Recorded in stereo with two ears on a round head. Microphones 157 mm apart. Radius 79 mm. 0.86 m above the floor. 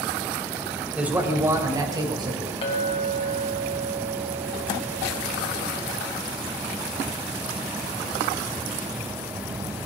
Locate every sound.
0.9 s a man speaking: 5° right (ahead or behind), 3 m; by 2.5 s 30° right (ahead or behind), 4.5 m
2.6 s a clink: 35° left (ahead or behind), 4 m